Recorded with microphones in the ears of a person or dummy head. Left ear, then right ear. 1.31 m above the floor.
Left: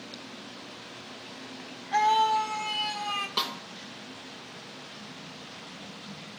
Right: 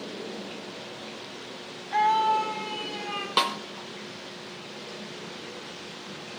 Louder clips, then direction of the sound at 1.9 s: Right 1 dB; 10° left (ahead or behind).